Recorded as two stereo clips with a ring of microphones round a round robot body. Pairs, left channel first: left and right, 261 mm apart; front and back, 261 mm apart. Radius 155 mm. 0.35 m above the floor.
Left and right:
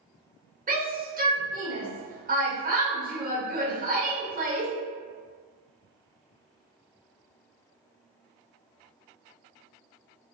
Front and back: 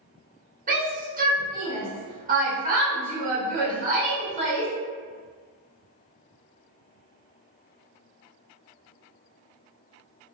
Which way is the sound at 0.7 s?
135° right.